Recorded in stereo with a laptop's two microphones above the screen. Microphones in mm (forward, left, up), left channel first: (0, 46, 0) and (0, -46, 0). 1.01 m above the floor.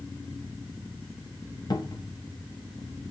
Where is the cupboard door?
45° left (ahead or behind), 0.6 m.